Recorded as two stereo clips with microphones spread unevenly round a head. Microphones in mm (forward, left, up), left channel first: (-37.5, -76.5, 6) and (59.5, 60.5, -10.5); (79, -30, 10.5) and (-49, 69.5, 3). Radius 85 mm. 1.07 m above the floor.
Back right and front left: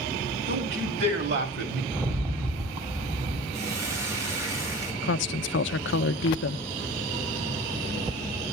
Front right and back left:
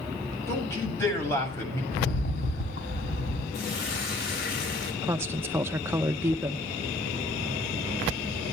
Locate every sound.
0.5 s a man speaking: 35° left, 8 m
1.9 s a rattle: 15° right, 3.5 m
3.5 s a hiss: 20° right, 4.5 m
5.0 s a woman speaking: 140° right, 0.6 m